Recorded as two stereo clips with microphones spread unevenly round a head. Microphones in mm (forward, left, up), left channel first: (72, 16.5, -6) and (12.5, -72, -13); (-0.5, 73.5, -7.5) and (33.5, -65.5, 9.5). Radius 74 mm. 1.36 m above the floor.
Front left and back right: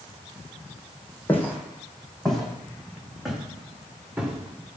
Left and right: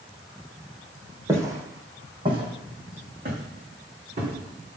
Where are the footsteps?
10° right, 2.5 m; by 4.8 s 45° right, 5 m.